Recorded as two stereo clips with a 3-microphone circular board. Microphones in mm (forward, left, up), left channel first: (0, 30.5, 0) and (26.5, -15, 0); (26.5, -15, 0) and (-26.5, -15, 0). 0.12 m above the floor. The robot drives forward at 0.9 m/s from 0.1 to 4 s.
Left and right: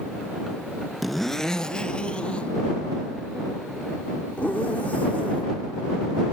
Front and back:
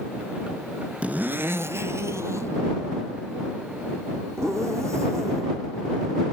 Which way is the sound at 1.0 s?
150° right.